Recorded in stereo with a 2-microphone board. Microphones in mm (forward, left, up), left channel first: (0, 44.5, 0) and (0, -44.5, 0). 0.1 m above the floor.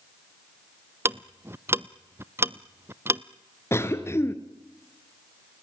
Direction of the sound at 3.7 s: 30° left (ahead or behind).